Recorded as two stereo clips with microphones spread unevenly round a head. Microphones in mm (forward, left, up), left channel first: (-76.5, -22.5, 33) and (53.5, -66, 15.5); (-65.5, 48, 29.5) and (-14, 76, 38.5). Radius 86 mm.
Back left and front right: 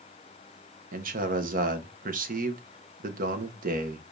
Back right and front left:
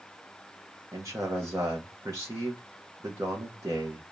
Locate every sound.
0.9 s a man speaking: 40° right, 0.9 m